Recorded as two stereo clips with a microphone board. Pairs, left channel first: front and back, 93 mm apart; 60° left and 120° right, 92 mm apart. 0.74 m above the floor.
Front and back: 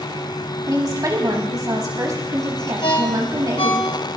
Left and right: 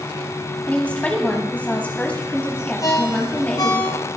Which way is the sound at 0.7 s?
135° left.